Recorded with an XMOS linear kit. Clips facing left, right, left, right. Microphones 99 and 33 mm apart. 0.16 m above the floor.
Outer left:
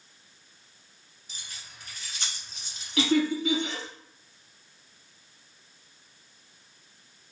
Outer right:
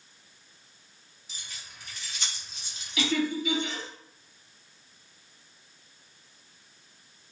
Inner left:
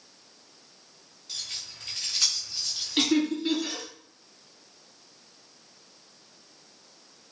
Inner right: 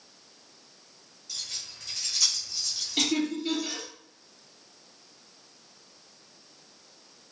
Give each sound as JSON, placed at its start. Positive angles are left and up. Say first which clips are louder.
{"t": 1.3, "sound": "keys jangling", "louder": "even, inner left 1 dB", "side_deg": 50, "distance_m": 1.6}
{"t": 3.0, "sound": "laughter", "louder": "outer left 4 dB, inner left 3 dB", "side_deg": 50, "distance_m": 1.8}